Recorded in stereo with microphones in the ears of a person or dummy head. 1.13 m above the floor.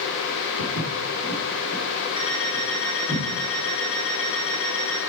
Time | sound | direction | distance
0.6 | footsteps | 40° left (ahead or behind) | 3.5 m
2.2 | an alarm clock | 35° left (ahead or behind) | 4.5 m